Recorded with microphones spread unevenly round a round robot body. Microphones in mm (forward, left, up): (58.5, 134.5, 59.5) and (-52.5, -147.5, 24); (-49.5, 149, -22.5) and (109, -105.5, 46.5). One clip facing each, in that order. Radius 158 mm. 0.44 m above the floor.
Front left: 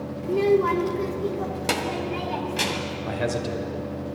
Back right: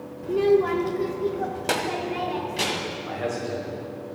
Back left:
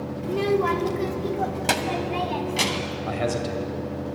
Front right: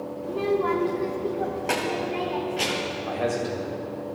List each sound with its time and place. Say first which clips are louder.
0.2 s a child speaking: back right 1 dB, back left 2 dB; 145° left, 0.7 m
3.1 s a man speaking: front left 2 dB, even; 85° left, 2 m